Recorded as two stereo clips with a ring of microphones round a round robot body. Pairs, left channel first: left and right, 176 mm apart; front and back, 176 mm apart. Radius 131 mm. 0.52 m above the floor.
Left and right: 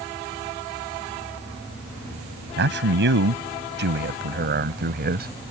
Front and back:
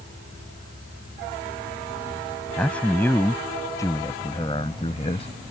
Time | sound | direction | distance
2.6 | a man speaking | 85° right | ?